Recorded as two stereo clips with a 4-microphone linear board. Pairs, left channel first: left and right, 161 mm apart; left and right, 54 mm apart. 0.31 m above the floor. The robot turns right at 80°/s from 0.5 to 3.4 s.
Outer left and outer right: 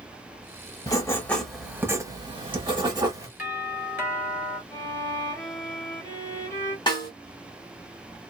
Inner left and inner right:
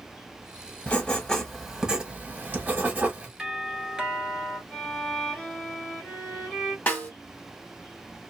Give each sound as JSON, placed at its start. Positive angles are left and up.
{"t": 0.9, "sound": "writing", "azimuth_deg": 130, "distance_m": 1.1}
{"t": 3.4, "sound": "a doorbell", "side_deg": -10, "distance_m": 1.9}
{"t": 4.7, "sound": "a violin", "side_deg": 15, "distance_m": 1.5}
{"t": 6.9, "sound": "a snare drum", "side_deg": 25, "distance_m": 1.2}